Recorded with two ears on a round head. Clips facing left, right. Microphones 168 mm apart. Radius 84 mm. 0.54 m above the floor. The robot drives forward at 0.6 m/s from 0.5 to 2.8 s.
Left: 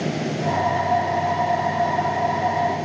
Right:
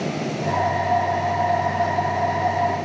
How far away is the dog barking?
No dog barking in this recording.